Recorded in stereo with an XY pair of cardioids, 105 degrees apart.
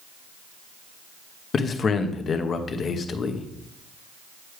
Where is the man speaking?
45° left, 0.9 m.